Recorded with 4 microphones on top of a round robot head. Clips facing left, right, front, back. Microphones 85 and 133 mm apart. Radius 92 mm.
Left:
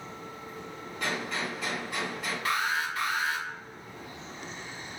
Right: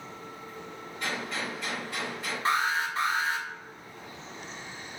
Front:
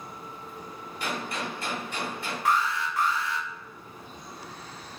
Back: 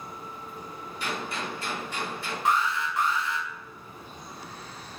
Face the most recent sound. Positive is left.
turn(degrees=-130)